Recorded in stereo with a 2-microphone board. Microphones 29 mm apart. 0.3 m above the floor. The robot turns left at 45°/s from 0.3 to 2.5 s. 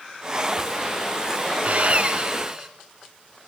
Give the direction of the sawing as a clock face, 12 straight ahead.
4 o'clock.